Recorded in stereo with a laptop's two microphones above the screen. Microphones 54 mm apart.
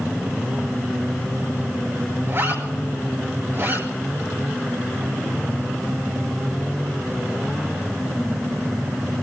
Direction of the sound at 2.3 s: 60° right (ahead or behind).